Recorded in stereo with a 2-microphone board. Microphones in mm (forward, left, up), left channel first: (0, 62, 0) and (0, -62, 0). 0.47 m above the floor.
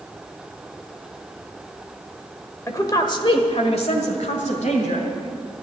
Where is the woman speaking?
20° left (ahead or behind), 1.5 m; by 5.1 s 75° left (ahead or behind), 2.5 m.